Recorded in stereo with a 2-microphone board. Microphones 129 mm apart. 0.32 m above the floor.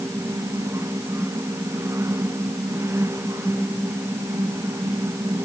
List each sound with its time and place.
Only background noise.